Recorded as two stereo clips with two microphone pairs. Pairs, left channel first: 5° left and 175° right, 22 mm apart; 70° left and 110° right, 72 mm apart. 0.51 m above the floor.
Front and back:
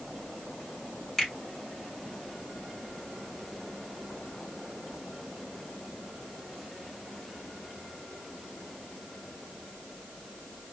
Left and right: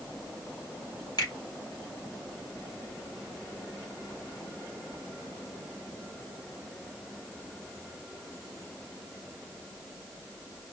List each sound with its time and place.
1.2 s a finger snap: 70° left, 2.5 m